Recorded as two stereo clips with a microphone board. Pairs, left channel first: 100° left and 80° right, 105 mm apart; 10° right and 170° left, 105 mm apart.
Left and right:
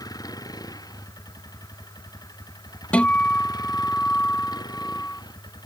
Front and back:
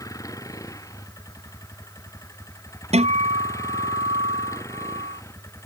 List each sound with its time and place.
0.0 s a vehicle: 50° left; by 5.7 s 55° left
2.9 s a guitar: straight behind